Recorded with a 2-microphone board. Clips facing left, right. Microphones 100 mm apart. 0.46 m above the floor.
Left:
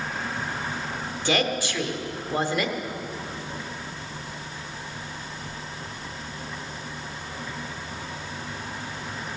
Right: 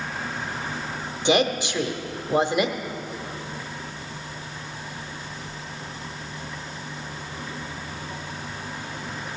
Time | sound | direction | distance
1.2 | a woman speaking | 20° right (ahead or behind) | 0.9 m